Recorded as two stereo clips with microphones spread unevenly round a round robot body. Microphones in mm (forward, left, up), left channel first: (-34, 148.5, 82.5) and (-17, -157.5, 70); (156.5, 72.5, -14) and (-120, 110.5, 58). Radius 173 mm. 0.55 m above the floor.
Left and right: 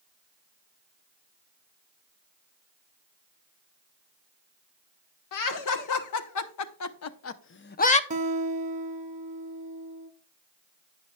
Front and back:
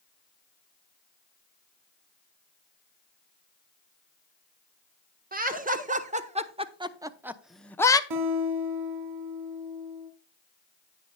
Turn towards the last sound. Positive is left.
turn(degrees=-155)